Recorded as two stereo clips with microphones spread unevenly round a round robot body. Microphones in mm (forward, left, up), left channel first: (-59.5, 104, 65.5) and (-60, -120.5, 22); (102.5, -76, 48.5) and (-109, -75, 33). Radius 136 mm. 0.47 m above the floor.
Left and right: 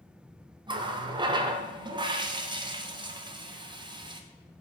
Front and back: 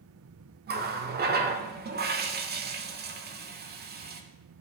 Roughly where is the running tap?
Behind right.